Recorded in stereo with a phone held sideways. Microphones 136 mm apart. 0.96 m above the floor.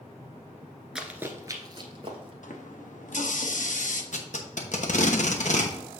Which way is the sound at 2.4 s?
70° left (ahead or behind).